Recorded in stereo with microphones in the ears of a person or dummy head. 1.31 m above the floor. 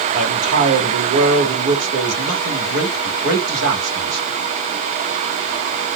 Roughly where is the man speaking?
Right.